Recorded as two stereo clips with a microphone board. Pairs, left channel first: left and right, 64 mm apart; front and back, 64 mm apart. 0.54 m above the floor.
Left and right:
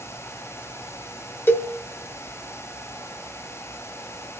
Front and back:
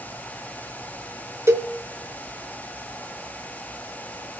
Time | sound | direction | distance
1.5 | a cowbell | 140° left | 1.0 m